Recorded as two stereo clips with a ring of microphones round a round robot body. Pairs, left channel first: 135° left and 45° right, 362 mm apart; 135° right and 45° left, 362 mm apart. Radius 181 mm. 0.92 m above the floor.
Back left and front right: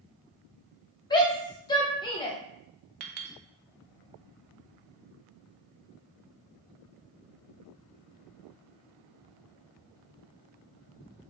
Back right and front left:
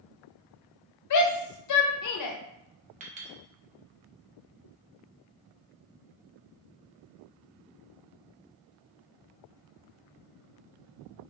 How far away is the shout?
About 0.7 m.